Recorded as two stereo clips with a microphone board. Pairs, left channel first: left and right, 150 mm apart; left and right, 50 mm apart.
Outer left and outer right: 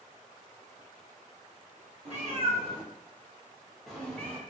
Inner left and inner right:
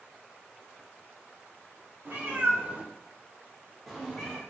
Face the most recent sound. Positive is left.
turn(degrees=15)  # may be behind; listen again after turning